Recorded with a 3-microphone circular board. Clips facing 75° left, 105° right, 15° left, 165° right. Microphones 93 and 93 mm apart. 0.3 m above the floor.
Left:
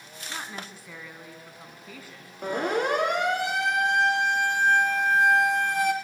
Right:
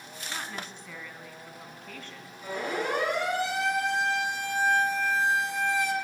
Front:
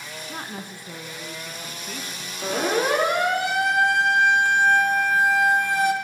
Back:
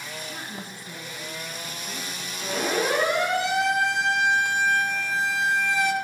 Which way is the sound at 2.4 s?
50° left.